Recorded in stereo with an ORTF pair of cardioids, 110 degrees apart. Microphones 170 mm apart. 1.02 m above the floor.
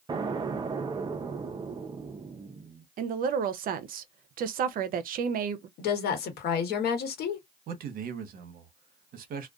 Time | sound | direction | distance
0.1 | an explosion | 25° right | 0.5 m
3.0 | a woman speaking | 55° right | 0.5 m
5.8 | a woman speaking | 70° left | 1.1 m
7.7 | a man speaking | 60° right | 0.8 m